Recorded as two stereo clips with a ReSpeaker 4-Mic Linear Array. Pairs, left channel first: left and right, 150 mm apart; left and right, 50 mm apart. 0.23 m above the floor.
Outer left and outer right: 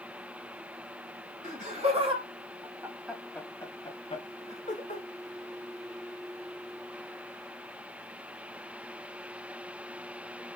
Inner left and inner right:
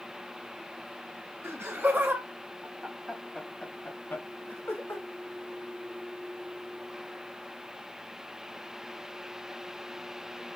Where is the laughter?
55° right (ahead or behind), 1.9 m; by 5.0 s 55° left (ahead or behind), 2 m.